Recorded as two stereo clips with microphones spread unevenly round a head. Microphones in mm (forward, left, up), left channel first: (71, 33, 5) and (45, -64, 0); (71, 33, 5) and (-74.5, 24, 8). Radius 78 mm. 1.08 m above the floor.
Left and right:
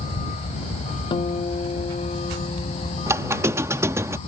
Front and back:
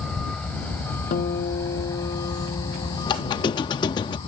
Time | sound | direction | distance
0.0 | a vehicle | 90° left | ?
1.1 | a guitar | 40° left | ?
3.1 | a squeak | 50° right | ?